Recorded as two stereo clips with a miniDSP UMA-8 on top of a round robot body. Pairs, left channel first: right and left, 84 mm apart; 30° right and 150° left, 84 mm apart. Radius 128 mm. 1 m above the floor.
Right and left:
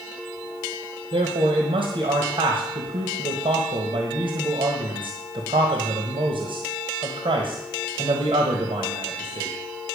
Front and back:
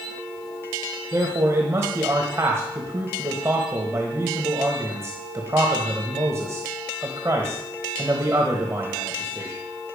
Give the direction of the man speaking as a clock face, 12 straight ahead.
9 o'clock.